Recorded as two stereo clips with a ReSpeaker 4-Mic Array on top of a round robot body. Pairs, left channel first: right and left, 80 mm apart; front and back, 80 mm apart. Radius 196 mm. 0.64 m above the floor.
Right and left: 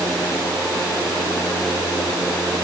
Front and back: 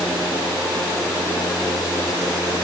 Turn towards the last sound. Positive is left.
No sound to turn to.